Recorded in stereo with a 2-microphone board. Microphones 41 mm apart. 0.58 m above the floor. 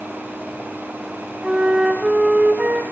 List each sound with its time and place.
1.4 s a flute: 25° right (ahead or behind), 2.5 m